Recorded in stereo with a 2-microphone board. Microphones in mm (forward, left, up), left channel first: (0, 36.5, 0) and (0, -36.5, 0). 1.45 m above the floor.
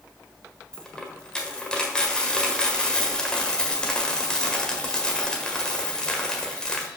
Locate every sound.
0.7 s a dropped coin: 10° left (ahead or behind), 1.5 m